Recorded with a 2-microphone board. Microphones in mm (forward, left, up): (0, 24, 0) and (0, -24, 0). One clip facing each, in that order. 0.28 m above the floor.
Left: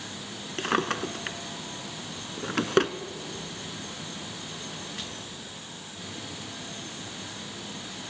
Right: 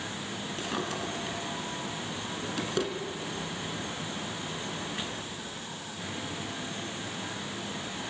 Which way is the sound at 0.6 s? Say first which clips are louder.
Left 8 dB; 55° left (ahead or behind).